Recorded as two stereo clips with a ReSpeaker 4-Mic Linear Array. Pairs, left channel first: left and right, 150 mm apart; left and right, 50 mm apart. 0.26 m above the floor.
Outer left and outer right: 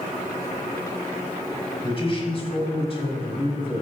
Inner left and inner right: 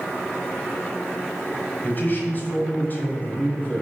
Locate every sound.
1.8 s a man speaking: 40° left (ahead or behind), 1.4 m